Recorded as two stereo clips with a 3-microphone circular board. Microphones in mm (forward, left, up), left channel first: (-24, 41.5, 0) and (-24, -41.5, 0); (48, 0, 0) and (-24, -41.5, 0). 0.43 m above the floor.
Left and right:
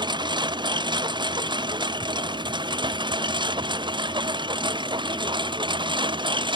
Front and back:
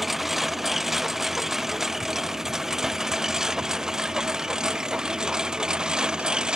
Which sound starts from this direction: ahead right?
A lawn mower, at 0.0 s.